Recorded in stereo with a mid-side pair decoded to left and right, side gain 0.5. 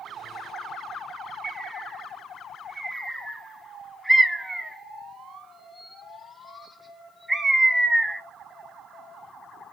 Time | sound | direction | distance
1.4 | a bird | 10° right | 1.1 m